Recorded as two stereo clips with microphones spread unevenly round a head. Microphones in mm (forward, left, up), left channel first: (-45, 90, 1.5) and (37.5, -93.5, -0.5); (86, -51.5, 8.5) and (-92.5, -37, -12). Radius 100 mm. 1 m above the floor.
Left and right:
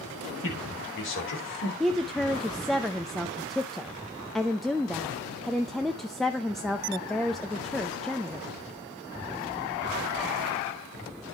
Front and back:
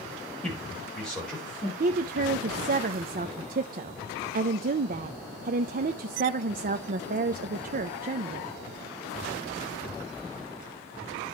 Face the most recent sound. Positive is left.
turn(degrees=-155)